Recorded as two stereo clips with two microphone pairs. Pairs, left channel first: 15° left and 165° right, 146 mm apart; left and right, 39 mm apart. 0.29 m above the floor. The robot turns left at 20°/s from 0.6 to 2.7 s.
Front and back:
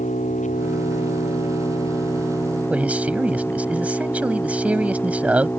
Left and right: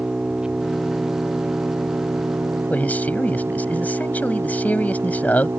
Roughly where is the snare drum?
No snare drum in this recording.